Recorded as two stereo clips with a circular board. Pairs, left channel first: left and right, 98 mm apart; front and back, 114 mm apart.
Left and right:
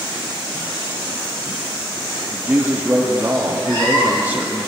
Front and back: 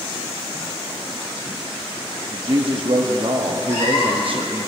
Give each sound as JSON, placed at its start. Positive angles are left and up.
{"t": 2.3, "sound": "a woman speaking", "azimuth_deg": -160, "distance_m": 0.9}
{"t": 3.7, "sound": "a cat meowing", "azimuth_deg": 40, "distance_m": 3.5}